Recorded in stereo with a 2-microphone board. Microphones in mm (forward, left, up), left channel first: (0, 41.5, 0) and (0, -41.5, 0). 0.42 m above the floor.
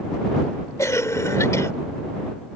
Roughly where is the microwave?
I don't hear a microwave.